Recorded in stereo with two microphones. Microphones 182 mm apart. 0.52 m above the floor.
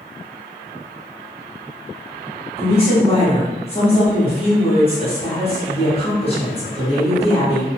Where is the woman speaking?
35° left (ahead or behind), 1.3 m.